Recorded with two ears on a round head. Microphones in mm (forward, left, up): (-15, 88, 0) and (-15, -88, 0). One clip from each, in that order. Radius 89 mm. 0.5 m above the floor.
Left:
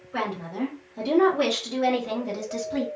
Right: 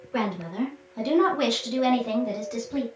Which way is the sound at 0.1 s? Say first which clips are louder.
Right 1 dB; 30° right (ahead or behind).